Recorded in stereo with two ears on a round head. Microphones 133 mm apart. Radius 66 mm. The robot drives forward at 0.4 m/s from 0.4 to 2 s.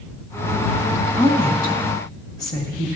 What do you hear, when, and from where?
1.2 s a woman speaking: 30° left (ahead or behind), 1.7 m; by 2.9 s 25° left (ahead or behind), 2 m